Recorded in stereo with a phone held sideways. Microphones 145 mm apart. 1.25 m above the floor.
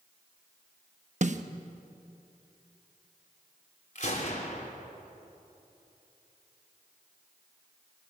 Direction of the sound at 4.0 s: 60° left (ahead or behind).